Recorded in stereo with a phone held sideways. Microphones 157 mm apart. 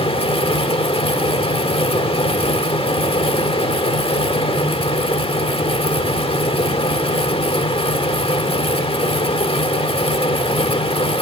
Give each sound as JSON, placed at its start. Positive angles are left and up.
{"t": 0.0, "sound": "a fan", "side_deg": 35, "distance_m": 1.3}